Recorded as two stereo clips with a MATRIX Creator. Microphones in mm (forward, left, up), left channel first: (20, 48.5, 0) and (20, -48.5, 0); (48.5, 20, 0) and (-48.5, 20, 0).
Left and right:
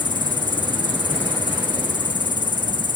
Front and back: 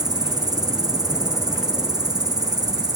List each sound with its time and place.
0.0 s an insect: 130° left, 0.9 m